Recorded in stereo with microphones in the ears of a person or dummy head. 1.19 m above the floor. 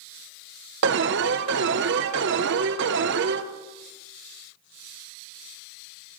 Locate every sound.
0.8 s an alarm: 60° right (ahead or behind), 0.8 m